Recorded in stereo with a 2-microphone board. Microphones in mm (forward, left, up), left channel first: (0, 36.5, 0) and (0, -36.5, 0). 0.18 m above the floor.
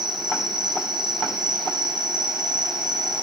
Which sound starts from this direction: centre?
An insect, at 0.0 s.